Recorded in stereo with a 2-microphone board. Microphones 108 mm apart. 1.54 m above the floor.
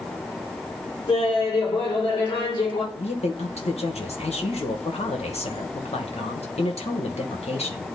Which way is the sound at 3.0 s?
75° left (ahead or behind).